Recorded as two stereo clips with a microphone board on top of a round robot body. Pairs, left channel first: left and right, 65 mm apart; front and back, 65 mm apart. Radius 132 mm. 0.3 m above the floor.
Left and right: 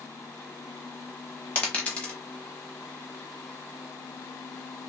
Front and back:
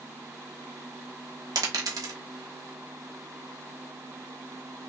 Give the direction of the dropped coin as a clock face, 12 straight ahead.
7 o'clock.